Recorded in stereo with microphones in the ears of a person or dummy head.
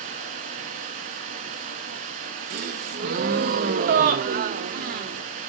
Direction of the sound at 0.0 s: 40° right (ahead or behind).